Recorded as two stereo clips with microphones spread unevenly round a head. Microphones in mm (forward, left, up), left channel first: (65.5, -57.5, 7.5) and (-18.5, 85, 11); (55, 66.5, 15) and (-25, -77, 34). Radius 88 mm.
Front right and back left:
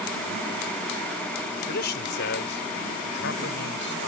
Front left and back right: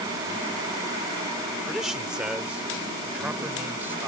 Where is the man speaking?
30° right; by 4.1 s 40° right.